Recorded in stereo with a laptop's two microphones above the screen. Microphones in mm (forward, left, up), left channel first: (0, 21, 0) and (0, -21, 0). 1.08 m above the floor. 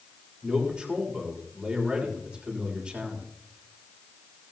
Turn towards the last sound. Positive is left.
turn(degrees=-20)  # may be behind; listen again after turning